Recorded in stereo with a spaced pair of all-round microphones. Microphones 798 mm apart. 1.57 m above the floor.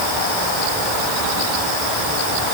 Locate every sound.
Only background noise.